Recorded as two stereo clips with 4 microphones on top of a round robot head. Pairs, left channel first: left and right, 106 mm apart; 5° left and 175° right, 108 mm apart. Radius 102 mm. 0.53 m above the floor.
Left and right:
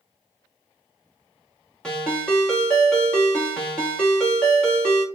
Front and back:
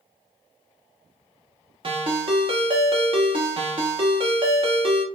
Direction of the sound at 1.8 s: 170° left.